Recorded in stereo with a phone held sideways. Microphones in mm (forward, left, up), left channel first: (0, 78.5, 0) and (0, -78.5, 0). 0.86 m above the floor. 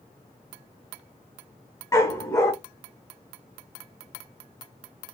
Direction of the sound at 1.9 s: 20° left (ahead or behind).